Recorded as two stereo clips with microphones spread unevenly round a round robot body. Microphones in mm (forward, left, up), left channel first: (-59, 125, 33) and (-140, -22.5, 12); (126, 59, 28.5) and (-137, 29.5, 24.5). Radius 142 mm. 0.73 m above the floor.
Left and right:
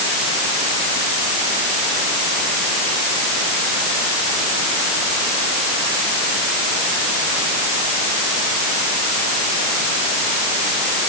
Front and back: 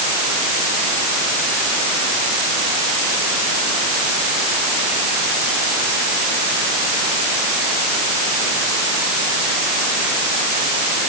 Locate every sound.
Only background noise.